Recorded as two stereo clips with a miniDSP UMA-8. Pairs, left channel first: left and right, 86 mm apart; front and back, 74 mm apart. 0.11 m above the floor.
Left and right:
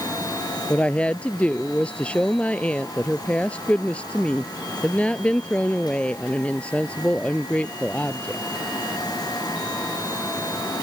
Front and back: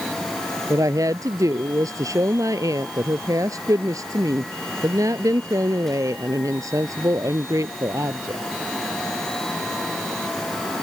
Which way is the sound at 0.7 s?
160° left.